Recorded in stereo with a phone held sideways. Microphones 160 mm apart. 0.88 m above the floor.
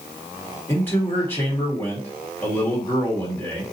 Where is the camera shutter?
No camera shutter in this recording.